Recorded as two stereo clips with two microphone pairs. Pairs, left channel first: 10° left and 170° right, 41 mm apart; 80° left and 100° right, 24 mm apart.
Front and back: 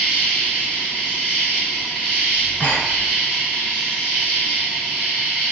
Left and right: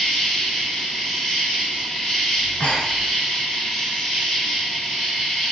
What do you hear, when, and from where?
0.0 s an insect: 125° left, 1.6 m
2.4 s breathing: 55° left, 0.7 m